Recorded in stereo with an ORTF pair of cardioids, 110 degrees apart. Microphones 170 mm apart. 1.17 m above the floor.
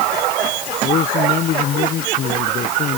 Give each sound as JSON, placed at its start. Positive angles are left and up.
{"t": 0.8, "sound": "a man speaking", "azimuth_deg": 50}